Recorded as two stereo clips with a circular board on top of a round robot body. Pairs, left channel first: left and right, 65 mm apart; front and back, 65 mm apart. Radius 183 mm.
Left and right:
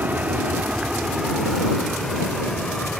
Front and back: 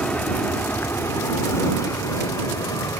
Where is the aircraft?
55° right; by 3.0 s 15° left.